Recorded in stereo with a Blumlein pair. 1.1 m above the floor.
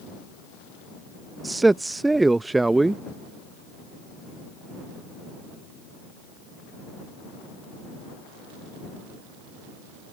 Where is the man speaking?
5° right.